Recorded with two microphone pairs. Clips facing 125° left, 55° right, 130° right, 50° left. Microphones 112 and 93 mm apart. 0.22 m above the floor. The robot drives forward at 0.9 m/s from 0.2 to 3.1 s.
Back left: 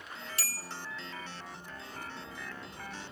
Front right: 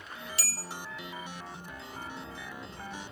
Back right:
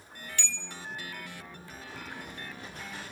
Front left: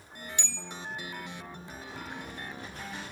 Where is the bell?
110° left, 0.6 m; by 0.7 s 135° left, 0.8 m.